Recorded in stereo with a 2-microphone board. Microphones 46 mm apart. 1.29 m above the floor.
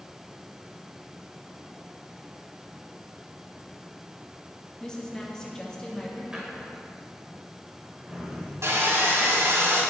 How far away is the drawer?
About 4 m.